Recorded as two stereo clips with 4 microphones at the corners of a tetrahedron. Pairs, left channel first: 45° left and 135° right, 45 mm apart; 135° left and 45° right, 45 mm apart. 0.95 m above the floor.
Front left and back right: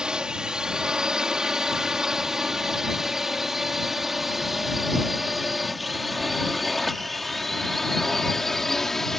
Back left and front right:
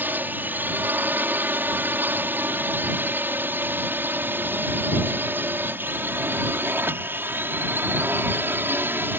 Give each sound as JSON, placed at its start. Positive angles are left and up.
{"t": 0.0, "sound": "a drone", "azimuth_deg": -65}